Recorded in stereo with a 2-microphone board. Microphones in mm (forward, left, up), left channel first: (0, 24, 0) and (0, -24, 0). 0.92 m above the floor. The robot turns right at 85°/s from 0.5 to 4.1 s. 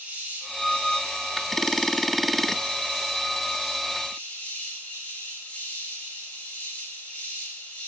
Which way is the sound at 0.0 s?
155° right.